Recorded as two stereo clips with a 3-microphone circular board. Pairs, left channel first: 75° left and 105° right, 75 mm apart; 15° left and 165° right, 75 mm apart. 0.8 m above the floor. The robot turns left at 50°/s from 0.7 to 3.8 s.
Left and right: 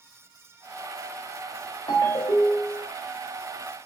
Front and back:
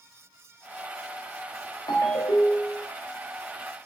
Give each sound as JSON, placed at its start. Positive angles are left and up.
{"t": 1.9, "sound": "a ringtone", "azimuth_deg": 55, "distance_m": 1.0}